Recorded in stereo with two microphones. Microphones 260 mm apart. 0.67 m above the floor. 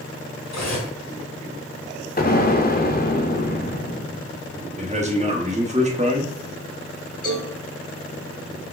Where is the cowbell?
60° left (ahead or behind), 3 m.